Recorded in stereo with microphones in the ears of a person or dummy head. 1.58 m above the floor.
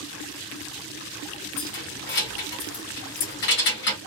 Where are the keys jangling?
45° left (ahead or behind), 1.3 m.